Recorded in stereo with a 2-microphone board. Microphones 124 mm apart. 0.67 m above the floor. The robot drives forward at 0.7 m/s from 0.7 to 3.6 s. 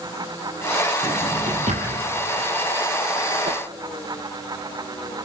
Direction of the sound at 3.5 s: 45° right (ahead or behind).